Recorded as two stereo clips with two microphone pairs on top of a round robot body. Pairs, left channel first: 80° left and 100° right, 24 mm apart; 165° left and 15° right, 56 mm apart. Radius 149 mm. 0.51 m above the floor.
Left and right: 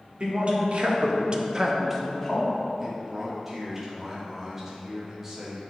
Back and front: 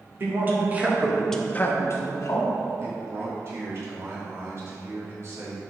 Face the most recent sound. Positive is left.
turn(degrees=-35)